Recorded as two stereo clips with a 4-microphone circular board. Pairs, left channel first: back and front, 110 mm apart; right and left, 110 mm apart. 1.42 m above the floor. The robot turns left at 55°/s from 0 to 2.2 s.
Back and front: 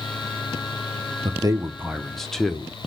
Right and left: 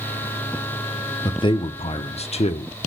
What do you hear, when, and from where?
1.2 s a man speaking: 40° right, 0.5 m; by 2.7 s 95° right, 0.5 m